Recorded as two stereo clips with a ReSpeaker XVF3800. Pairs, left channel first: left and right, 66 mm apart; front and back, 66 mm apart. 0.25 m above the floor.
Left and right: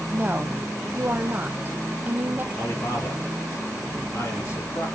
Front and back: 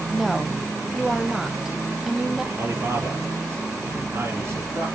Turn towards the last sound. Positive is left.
turn(degrees=135)